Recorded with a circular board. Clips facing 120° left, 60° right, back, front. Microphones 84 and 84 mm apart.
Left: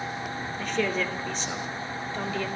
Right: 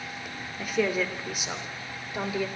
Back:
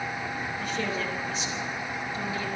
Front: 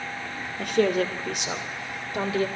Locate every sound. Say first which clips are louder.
0.6 s a woman speaking: right 1 dB, front 11 dB; 20° left, 2 m